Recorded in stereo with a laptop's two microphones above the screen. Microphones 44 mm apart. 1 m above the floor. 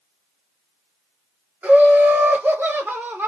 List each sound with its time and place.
1.6 s laughter: 30° right (ahead or behind), 1.0 m; by 3.3 s 55° right (ahead or behind), 0.8 m